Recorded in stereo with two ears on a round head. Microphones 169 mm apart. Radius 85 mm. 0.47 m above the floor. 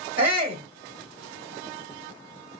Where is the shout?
10° right (ahead or behind), 1.0 m.